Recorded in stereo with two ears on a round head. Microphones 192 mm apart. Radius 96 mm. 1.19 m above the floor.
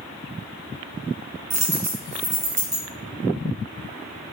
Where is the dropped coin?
35° right (ahead or behind), 3.5 m.